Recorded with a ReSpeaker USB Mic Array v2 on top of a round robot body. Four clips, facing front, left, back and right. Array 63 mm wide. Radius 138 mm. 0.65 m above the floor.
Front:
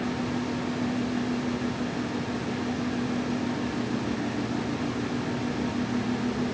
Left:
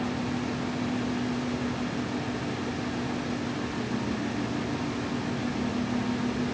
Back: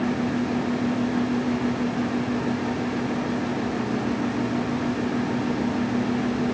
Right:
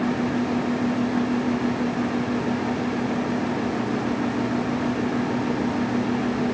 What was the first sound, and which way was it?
Only background noise.